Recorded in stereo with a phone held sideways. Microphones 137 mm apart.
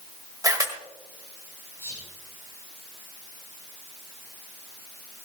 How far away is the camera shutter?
About 1.8 m.